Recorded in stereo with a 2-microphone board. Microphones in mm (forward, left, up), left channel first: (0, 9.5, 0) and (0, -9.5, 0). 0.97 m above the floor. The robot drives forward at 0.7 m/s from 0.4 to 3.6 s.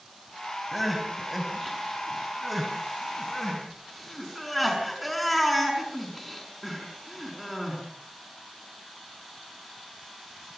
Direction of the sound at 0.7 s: 5° right (ahead or behind).